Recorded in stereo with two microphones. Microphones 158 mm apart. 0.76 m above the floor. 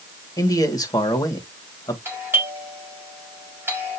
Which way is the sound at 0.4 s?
20° left (ahead or behind).